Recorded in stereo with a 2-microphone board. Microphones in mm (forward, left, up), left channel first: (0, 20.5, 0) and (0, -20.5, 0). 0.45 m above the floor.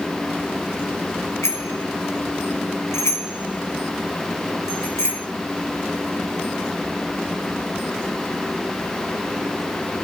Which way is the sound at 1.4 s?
85° left.